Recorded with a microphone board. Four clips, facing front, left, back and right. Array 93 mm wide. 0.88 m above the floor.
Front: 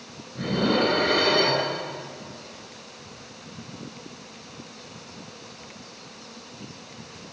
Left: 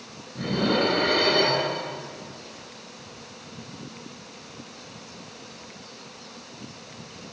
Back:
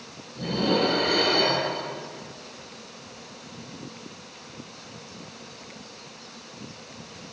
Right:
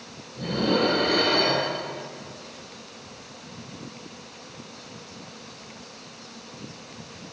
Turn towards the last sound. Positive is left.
turn(degrees=35)